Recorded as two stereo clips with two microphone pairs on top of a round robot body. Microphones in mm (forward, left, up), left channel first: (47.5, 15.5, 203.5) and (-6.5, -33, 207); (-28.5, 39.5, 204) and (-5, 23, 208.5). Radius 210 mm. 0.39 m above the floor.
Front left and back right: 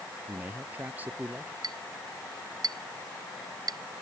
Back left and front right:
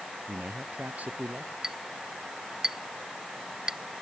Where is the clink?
105° right.